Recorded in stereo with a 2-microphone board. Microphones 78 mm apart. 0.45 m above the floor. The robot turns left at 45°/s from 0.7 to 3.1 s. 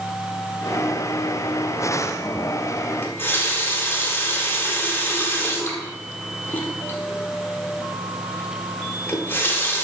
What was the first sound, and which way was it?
A running tap, 25° left (ahead or behind).